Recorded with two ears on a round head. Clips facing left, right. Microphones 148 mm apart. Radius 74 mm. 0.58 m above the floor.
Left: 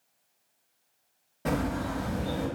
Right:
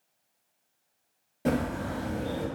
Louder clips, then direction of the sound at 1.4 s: Right 1 dB; 20° right (ahead or behind).